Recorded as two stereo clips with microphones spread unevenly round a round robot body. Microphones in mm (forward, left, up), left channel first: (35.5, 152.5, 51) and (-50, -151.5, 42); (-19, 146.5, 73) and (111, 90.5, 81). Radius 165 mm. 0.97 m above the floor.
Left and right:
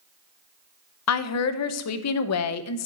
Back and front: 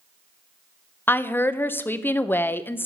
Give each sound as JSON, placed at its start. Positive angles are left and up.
{"t": 1.1, "sound": "a woman speaking", "azimuth_deg": 85, "distance_m": 0.8}